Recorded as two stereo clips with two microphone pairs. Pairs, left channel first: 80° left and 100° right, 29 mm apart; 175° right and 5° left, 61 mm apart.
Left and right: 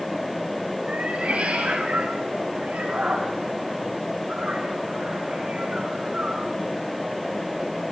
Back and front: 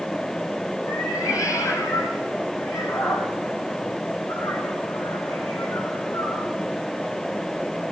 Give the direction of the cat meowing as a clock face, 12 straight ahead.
5 o'clock.